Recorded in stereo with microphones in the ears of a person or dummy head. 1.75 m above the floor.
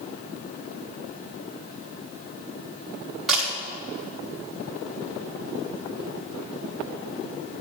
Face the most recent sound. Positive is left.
turn(degrees=0)  # may be behind; listen again after turning